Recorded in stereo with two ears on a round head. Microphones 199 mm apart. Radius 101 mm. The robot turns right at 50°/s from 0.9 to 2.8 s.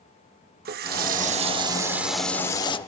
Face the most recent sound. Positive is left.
turn(degrees=30)